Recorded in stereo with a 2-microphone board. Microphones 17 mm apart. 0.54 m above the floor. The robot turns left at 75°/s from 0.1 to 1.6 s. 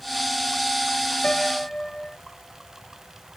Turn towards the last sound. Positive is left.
turn(degrees=40)  # may be behind; listen again after turning